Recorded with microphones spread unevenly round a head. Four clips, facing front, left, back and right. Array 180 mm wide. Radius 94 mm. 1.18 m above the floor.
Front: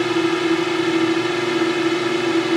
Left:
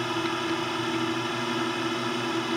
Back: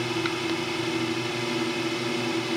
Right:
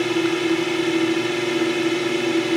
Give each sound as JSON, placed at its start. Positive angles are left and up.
{"t": 0.0, "sound": "a drone", "azimuth_deg": -25}